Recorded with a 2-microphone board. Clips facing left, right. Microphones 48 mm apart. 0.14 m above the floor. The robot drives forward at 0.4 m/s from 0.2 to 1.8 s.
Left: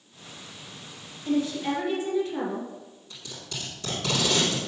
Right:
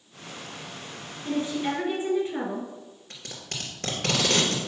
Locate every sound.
1.2 s a woman speaking: 30° right (ahead or behind), 1.8 m
3.1 s tape being pulled: 60° right (ahead or behind), 2 m